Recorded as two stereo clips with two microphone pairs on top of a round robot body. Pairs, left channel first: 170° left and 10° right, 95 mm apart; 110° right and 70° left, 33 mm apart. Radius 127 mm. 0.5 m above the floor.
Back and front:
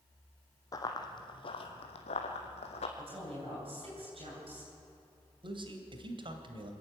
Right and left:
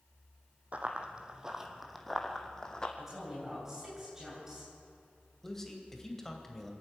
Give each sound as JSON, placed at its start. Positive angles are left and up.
{"t": 0.7, "sound": "running footsteps", "azimuth_deg": 120, "distance_m": 1.5}
{"t": 3.0, "sound": "a woman speaking", "azimuth_deg": -5, "distance_m": 9.5}
{"t": 5.4, "sound": "a man speaking", "azimuth_deg": -30, "distance_m": 2.5}